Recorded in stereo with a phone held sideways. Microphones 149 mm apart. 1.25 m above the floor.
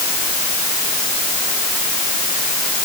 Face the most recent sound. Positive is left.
No sound to turn to.